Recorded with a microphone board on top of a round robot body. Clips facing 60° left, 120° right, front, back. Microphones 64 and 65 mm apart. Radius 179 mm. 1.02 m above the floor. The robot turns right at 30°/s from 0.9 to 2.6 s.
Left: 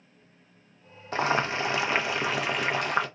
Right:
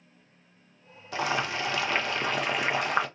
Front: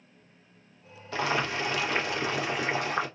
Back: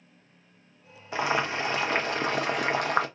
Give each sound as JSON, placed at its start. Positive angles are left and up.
{"t": 1.1, "sound": "boiling", "azimuth_deg": 110, "distance_m": 0.6}